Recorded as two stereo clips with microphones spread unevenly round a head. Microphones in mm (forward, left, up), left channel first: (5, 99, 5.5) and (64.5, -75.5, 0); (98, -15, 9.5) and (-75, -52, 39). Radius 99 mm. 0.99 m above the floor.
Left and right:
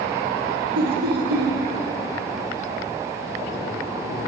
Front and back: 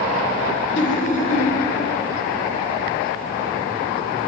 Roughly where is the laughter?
Ahead right.